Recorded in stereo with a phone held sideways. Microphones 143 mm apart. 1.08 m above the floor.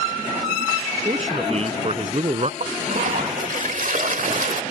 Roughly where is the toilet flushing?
Right.